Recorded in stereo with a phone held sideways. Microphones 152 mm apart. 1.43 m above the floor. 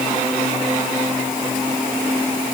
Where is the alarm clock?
No alarm clock in this recording.